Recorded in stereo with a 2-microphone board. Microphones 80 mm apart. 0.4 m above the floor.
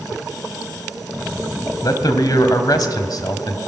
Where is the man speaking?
60° left (ahead or behind), 1.9 m.